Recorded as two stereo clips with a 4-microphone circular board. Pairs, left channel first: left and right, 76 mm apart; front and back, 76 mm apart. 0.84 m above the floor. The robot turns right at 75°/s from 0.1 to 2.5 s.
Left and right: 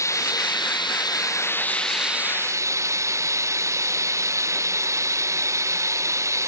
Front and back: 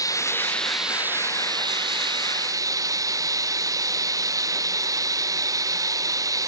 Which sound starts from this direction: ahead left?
Running water, at 0.0 s.